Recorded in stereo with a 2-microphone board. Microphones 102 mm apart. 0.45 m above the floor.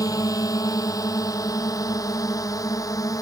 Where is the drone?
35° left (ahead or behind).